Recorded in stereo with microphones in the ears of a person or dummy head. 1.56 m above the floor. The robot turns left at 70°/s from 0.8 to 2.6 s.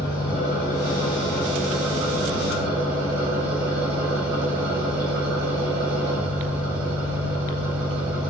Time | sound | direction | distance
0.0 | an engine running | 60° left | 1.7 m